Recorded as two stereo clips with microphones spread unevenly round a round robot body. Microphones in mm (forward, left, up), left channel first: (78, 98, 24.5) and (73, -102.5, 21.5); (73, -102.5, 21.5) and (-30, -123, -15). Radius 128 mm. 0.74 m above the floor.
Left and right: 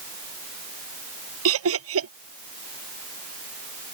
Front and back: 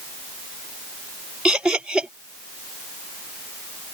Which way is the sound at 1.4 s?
85° right.